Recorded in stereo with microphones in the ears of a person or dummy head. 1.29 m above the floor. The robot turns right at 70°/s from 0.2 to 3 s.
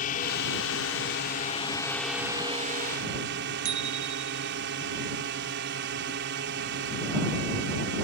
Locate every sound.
0.0 s a drone: 50° left; by 8.0 s 115° right
3.6 s a bicycle bell: 60° right (ahead or behind)